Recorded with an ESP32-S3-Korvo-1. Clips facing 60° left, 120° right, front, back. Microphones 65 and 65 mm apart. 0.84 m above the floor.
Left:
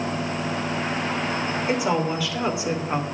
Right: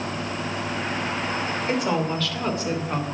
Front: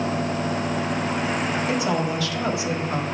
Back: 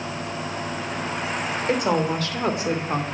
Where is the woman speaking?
145° left, 3 m; by 3.0 s 135° left, 2 m.